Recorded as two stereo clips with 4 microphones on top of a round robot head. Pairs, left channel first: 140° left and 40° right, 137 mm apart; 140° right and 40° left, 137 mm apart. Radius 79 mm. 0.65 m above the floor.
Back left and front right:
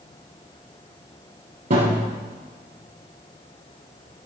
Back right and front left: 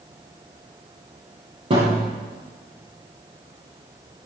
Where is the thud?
5° right, 10 m.